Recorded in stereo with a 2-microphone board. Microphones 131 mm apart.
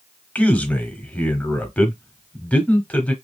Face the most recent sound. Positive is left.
turn(degrees=10)  # may be behind; listen again after turning